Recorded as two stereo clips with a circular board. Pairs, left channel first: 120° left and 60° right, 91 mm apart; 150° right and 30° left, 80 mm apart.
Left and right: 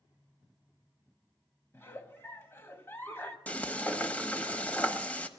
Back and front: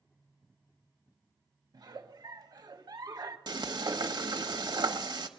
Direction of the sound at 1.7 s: 55° left.